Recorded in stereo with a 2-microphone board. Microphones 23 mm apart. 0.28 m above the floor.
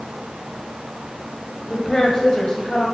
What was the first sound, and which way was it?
A woman speaking, 20° left (ahead or behind).